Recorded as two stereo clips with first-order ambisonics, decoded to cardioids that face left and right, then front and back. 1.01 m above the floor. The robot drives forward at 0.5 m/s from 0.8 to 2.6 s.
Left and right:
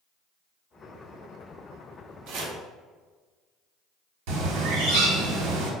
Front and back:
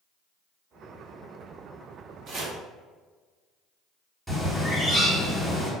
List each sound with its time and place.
2.3 s chopping: 125° right, 0.8 m; by 2.6 s 135° right, 0.9 m
4.3 s a bird: 95° right, 1.2 m